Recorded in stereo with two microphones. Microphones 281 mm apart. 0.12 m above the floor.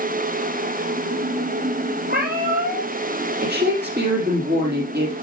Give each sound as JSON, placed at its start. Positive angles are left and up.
{"t": 2.1, "sound": "a cat meowing", "side_deg": -30, "distance_m": 2.0}
{"t": 3.4, "sound": "a woman speaking", "side_deg": -35, "distance_m": 4.5}